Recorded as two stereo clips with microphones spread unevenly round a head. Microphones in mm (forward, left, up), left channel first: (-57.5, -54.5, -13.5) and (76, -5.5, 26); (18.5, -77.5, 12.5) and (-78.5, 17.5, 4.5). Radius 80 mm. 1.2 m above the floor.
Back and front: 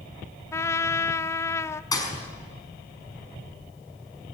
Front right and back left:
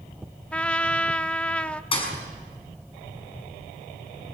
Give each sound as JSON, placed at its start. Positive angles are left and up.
{"t": 0.5, "sound": "a trumpet", "azimuth_deg": -125, "distance_m": 0.8}
{"t": 1.9, "sound": "a thud", "azimuth_deg": -95, "distance_m": 6.0}